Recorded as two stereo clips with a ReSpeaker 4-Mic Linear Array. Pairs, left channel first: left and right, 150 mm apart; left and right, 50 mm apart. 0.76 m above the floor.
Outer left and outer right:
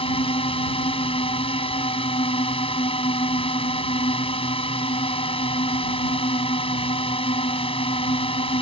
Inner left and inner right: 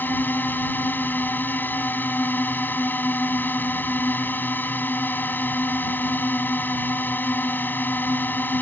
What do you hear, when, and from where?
0.0 s a drone: 40° left (ahead or behind)